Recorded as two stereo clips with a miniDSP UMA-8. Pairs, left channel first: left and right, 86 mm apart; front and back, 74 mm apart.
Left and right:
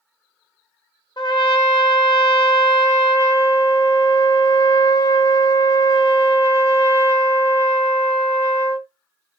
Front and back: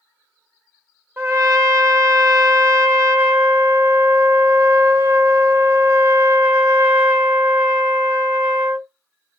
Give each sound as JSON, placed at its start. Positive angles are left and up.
{"t": 1.2, "sound": "a trumpet", "azimuth_deg": 125, "distance_m": 1.1}